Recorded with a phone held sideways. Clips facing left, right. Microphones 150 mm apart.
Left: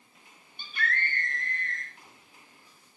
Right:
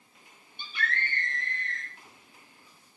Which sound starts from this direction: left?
A scream, at 0.6 s.